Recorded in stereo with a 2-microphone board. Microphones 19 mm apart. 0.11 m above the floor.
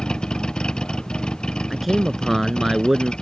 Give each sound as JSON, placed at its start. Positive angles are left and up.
{"t": 0.0, "sound": "a vehicle", "side_deg": 55}
{"t": 1.7, "sound": "a man speaking", "side_deg": -10}